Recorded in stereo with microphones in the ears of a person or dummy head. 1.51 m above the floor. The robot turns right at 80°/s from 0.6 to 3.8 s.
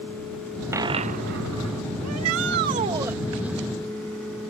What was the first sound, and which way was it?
A dropped coin, 170° right.